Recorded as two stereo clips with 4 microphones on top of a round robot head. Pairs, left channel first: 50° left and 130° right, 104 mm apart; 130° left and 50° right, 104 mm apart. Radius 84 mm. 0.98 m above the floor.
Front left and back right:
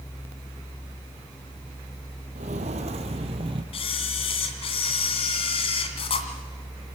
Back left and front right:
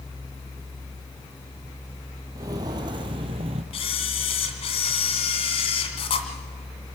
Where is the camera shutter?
90° left, 2 m.